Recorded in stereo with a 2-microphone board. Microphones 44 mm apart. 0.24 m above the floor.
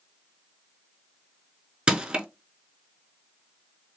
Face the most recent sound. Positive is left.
turn(degrees=-20)  # may be behind; listen again after turning